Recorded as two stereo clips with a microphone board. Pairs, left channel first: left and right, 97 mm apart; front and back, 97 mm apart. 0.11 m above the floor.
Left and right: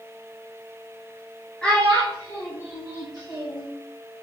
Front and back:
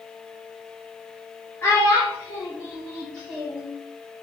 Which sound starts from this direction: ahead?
A child speaking, at 1.6 s.